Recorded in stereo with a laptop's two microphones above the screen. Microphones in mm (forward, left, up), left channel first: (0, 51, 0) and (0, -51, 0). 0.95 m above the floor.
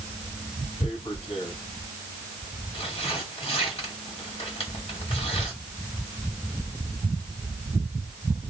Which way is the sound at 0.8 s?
65° left (ahead or behind).